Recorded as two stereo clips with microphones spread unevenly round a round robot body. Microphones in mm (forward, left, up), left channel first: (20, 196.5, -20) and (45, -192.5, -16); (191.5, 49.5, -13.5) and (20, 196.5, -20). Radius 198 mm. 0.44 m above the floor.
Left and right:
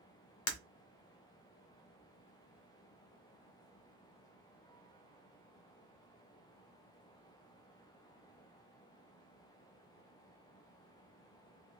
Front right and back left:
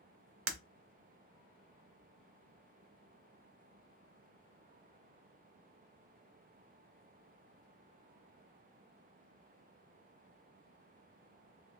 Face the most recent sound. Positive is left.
turn(degrees=145)